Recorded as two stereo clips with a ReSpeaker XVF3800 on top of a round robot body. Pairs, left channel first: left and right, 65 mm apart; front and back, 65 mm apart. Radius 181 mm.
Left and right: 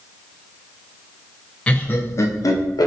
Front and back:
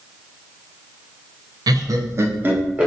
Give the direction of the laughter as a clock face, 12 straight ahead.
7 o'clock.